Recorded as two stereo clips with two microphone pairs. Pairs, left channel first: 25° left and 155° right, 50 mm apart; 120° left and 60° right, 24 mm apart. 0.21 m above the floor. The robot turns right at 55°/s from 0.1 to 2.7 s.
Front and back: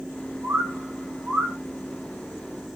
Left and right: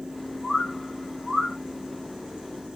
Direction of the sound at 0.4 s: 170° right.